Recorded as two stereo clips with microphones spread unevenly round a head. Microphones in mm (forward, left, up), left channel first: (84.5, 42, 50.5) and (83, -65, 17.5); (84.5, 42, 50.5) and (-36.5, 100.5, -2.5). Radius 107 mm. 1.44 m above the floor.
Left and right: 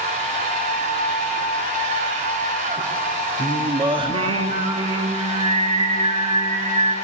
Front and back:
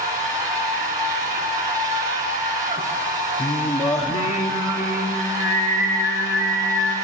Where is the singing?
45° right, 1.4 m.